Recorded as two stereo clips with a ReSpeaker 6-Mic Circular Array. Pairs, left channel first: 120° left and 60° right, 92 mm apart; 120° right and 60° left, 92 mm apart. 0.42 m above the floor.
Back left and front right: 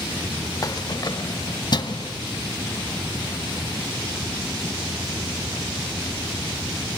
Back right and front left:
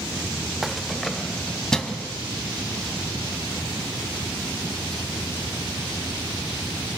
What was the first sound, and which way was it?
Keys jangling, 145° left.